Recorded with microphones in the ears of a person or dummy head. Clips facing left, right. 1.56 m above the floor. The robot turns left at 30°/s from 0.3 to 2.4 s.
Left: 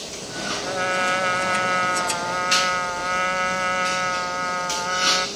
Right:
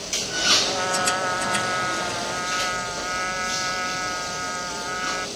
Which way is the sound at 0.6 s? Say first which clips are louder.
Left 3 dB; 150° left.